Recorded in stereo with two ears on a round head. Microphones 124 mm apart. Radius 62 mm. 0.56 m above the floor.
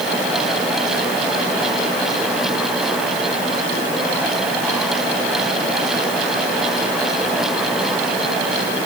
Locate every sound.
Only background noise.